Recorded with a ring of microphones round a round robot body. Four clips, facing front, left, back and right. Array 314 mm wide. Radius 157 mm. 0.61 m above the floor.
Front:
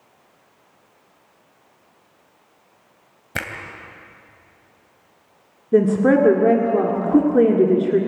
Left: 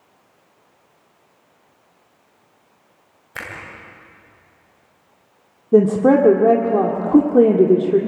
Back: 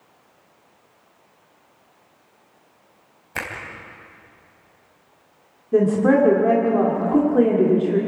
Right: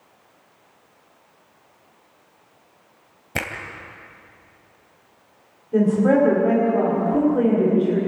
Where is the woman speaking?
65° left, 1.9 m.